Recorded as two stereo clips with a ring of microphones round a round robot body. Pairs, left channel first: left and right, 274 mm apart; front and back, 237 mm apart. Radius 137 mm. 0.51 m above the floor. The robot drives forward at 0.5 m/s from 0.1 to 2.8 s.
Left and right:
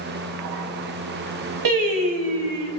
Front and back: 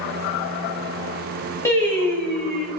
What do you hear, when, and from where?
1.6 s singing: 80° right, 3.5 m; by 2.7 s 90° right, 3.5 m